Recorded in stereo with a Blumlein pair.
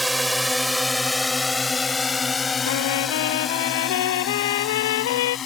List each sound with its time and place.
0.0 s a drone: 5° right; by 5.5 s 25° left
2.6 s a trumpet: 55° left